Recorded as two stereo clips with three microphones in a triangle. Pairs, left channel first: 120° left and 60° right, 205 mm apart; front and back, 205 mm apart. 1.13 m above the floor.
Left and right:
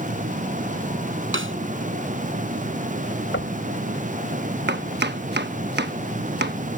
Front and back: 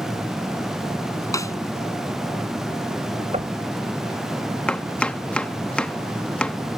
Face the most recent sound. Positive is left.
turn(degrees=-85)